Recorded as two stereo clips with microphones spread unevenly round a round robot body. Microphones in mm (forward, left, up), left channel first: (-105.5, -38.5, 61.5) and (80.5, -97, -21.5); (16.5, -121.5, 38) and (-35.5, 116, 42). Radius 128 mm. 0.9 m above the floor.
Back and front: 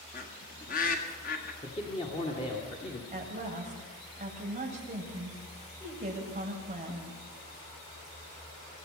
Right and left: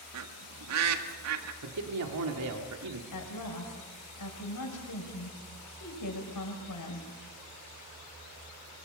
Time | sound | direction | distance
0.1 | a bird | 100° left | 1.8 m
1.6 | a man speaking | 90° left | 2 m
3.1 | a woman speaking | 65° right | 6 m